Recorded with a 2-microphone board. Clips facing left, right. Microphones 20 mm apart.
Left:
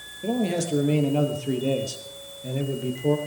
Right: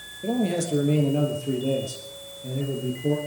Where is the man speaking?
20° left (ahead or behind), 3 m; by 3.2 s 65° left (ahead or behind), 3 m.